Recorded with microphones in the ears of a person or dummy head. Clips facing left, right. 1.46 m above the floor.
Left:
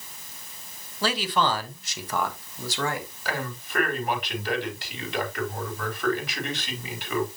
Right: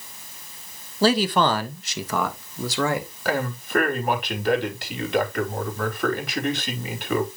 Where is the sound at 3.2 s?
55° right (ahead or behind), 4 m.